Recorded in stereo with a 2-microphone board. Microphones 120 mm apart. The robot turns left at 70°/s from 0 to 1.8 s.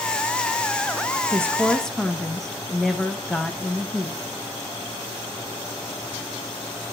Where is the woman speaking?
150° right, 0.6 m; by 4.2 s 175° left, 0.6 m.